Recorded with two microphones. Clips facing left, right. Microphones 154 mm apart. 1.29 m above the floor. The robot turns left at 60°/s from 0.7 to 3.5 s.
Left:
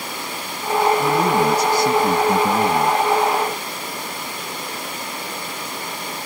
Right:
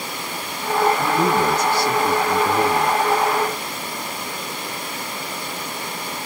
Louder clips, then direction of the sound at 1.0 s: Left 1 dB; 175° right.